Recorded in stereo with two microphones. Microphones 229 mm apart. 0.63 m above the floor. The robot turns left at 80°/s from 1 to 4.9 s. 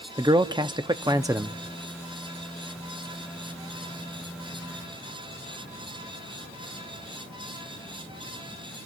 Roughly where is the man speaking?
Centre.